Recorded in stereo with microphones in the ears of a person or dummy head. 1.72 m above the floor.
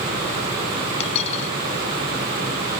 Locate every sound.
1.0 s a dropped coin: 40° left (ahead or behind)